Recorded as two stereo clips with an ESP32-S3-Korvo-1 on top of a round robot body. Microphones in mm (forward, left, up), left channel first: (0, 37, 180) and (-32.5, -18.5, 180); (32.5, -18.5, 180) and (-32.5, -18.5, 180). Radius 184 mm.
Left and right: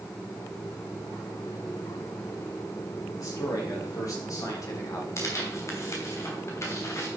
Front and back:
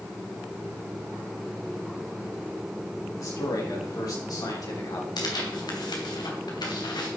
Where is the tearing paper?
10° left, 2.5 m.